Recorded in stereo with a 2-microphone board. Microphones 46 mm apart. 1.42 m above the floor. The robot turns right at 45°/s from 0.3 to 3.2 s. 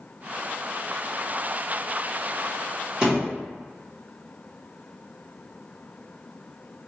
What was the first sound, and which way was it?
A thud, 20° right (ahead or behind).